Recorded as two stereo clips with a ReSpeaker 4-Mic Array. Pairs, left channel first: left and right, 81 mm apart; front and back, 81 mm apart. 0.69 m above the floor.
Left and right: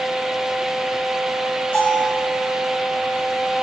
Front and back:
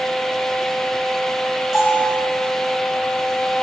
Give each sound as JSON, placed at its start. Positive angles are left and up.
{"t": 1.7, "sound": "a bell", "azimuth_deg": 95, "distance_m": 4.5}